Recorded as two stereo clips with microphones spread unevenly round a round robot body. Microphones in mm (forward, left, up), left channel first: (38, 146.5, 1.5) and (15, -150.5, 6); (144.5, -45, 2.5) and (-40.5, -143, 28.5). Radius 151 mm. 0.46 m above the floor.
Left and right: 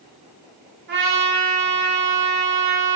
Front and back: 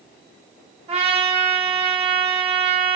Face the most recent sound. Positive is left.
turn(degrees=-100)